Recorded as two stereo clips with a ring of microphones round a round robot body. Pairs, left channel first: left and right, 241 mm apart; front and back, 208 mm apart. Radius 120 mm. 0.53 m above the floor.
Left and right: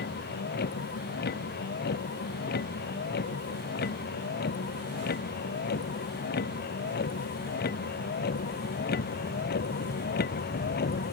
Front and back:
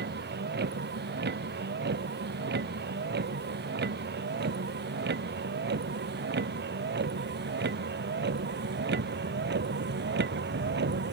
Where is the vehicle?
140° left; by 11.1 s 145° left.